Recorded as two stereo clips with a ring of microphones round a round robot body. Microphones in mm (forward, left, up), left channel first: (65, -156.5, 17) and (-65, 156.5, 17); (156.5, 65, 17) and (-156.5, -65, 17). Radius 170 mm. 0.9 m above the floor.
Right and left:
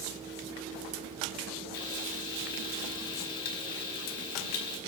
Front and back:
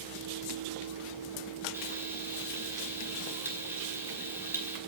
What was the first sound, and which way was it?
Frying, 75° right.